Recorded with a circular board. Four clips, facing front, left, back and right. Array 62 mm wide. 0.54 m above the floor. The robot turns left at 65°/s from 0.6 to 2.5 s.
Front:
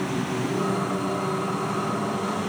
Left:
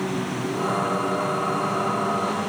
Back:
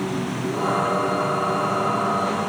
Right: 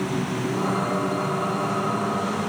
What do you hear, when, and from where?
Only background noise.